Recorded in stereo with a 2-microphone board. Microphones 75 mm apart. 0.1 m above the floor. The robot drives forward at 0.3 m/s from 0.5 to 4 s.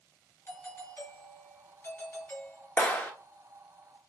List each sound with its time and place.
0.5 s a doorbell: 30° left (ahead or behind), 2.5 m
2.8 s a clap: 25° left (ahead or behind), 1.1 m